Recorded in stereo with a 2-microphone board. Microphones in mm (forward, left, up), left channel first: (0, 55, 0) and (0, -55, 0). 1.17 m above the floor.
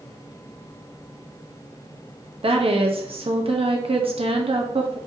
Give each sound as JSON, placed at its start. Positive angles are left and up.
{"t": 2.4, "sound": "a woman speaking", "side_deg": -60, "distance_m": 1.0}